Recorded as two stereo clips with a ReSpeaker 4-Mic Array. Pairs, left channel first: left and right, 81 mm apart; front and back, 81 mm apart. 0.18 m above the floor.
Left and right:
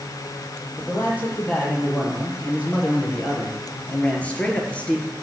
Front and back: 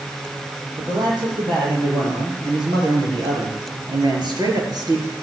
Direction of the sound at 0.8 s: 155° left.